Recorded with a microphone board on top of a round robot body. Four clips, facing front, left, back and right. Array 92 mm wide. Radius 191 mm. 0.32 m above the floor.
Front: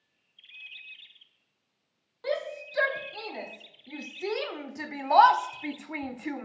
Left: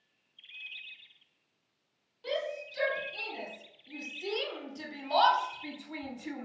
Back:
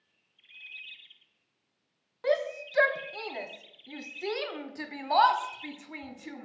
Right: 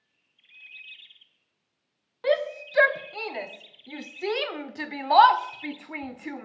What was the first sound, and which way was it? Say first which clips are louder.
A shout: right 10 dB, back 4 dB; 110° right.